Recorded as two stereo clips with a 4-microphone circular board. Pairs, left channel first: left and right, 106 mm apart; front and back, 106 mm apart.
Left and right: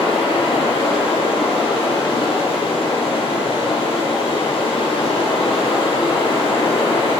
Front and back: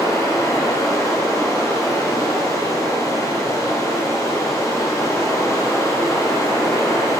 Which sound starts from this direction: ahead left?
Running water, at 0.0 s.